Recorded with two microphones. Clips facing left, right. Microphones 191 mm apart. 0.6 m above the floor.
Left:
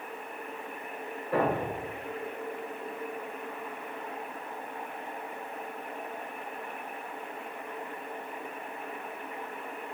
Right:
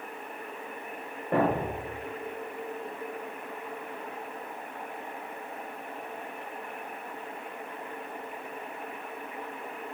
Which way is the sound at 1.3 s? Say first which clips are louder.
Right 2 dB; 55° right (ahead or behind).